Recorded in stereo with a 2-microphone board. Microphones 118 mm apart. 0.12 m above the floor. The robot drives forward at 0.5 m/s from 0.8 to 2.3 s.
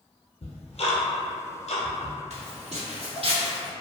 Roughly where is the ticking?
Left.